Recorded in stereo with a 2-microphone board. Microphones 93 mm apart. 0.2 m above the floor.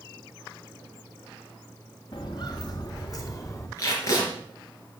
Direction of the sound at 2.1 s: 55° left (ahead or behind).